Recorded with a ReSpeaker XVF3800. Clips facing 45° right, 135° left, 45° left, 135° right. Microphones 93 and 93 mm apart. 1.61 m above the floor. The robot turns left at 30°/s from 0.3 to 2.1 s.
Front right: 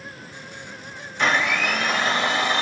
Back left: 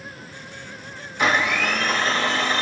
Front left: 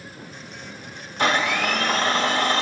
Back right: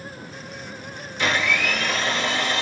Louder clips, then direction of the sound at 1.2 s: Back left 1 dB, front left 2 dB; 50° left.